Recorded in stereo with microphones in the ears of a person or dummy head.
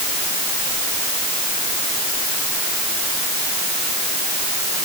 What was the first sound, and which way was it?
Only background noise.